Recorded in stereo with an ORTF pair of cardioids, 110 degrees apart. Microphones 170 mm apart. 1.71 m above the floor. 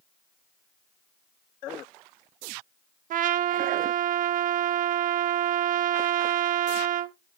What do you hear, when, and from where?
3.1 s a trumpet: 50° right, 0.5 m